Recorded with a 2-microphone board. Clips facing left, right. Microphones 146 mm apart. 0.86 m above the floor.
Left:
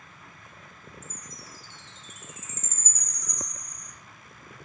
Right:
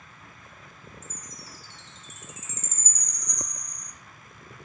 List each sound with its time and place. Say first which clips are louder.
1.0 s a chime: even; 60° left (ahead or behind), 2 m